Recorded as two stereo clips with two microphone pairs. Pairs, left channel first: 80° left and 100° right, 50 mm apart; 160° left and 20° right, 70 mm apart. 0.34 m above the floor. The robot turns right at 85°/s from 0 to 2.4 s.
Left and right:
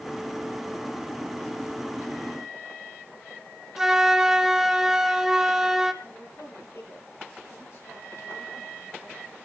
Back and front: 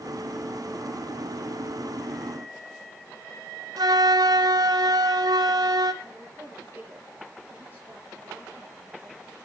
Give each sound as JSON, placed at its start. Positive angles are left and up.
{"t": 3.8, "sound": "a flute", "azimuth_deg": -20, "distance_m": 1.1}
{"t": 6.0, "sound": "a woman speaking", "azimuth_deg": 45, "distance_m": 7.0}